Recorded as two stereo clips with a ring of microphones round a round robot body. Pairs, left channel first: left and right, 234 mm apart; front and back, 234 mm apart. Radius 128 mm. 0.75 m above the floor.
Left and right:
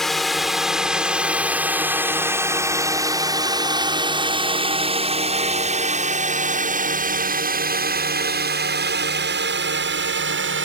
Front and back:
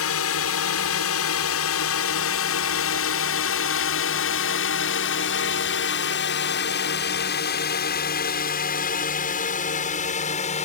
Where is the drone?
Straight ahead; by 10.7 s 60° right.